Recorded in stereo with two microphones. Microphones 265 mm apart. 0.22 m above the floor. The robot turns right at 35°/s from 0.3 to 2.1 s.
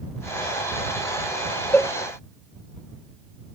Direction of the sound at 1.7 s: 5° left (ahead or behind).